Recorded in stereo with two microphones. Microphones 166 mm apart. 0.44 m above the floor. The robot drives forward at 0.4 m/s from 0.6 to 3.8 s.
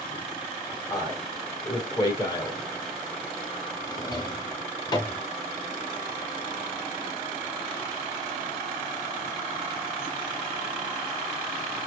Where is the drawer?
30° left (ahead or behind), 0.9 m.